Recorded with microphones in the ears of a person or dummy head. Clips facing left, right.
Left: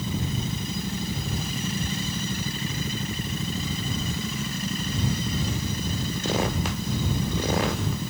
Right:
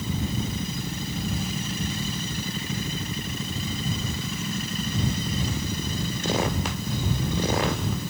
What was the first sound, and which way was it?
Only background noise.